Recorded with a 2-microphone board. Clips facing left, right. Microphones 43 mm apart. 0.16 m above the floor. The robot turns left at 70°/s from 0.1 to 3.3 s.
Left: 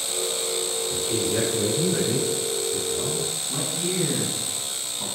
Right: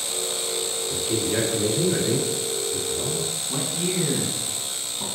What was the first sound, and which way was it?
A man speaking, 55° right.